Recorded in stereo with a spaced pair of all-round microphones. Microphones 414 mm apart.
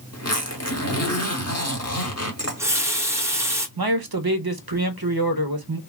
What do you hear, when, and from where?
0.1 s a zipper: 40° left (ahead or behind), 0.8 m
2.4 s a running tap: 5° right (ahead or behind), 0.7 m
3.8 s a man speaking: 60° right (ahead or behind), 0.7 m